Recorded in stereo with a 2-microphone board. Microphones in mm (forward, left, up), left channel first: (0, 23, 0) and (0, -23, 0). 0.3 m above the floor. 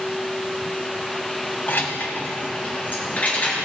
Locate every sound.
1.7 s keys jangling: 50° left (ahead or behind), 1.1 m; by 3.6 s 35° left (ahead or behind), 3.5 m